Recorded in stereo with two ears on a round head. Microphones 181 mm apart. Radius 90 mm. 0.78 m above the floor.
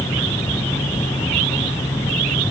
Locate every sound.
Only background noise.